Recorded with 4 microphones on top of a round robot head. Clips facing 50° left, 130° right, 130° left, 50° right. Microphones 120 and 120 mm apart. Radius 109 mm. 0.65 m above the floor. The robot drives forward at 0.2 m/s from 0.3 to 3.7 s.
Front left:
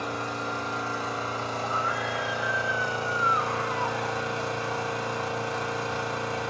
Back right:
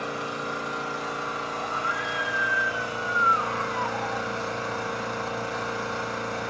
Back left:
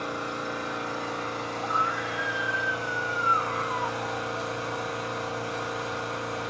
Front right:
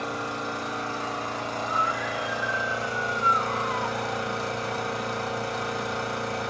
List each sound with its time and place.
0.0 s an engine running: 10° right, 1.1 m; by 6.5 s 20° right, 0.5 m
1.6 s a scream: 100° left, 2.5 m; by 4.6 s 110° left, 2.5 m